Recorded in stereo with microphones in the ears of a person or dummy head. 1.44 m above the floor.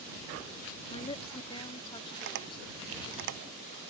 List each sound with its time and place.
0.9 s a woman speaking: 25° left (ahead or behind); by 3.2 s 20° left (ahead or behind)
2.2 s tapping: 65° right (ahead or behind)